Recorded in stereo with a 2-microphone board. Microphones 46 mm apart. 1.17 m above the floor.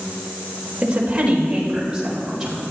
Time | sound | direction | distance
0.8 | a woman speaking | 25° right (ahead or behind) | 4.5 m